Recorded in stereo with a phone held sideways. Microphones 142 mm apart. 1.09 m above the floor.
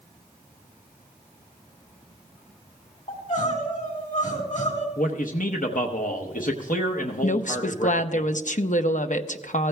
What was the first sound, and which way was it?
Crying, 65° left (ahead or behind).